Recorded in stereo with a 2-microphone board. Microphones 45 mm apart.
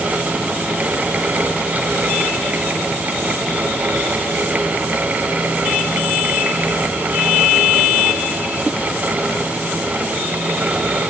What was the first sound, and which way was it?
Only background noise.